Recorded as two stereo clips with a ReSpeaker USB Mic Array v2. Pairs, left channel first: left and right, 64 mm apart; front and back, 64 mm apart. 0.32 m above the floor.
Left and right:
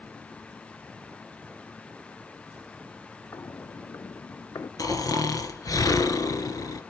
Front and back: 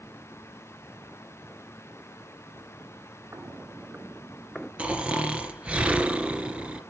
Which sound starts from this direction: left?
Snoring, at 4.8 s.